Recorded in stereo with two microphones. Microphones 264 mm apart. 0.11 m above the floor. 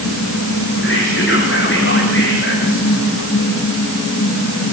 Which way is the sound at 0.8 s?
50° left (ahead or behind).